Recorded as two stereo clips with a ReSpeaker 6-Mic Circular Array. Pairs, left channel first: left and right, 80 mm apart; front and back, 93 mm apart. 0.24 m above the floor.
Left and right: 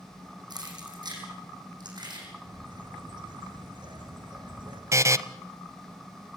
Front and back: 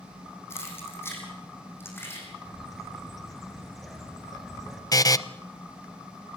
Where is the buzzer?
45° right, 0.7 m.